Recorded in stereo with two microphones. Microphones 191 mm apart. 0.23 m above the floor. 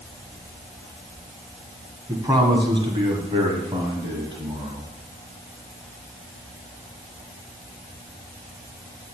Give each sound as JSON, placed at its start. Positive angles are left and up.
{"t": 2.1, "sound": "a man speaking", "side_deg": -15, "distance_m": 2.0}